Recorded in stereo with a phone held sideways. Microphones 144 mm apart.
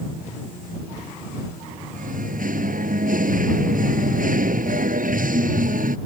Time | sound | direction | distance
1.9 | singing | 70° right (ahead or behind) | ?